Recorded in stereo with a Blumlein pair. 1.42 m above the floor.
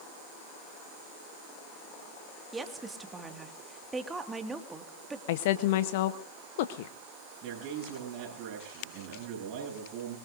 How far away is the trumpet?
No trumpet in this recording.